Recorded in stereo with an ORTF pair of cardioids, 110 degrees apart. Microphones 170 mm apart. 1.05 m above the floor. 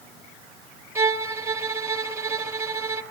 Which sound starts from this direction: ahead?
A violin, at 0.9 s.